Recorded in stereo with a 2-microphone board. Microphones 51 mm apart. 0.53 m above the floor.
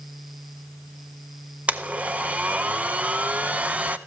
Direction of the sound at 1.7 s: 30° right (ahead or behind).